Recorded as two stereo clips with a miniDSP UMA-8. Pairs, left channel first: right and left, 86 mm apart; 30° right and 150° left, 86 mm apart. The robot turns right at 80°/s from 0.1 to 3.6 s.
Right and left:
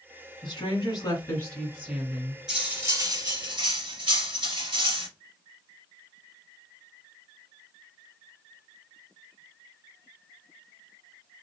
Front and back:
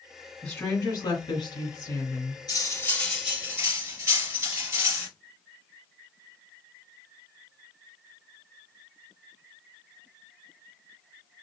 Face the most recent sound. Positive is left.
turn(degrees=95)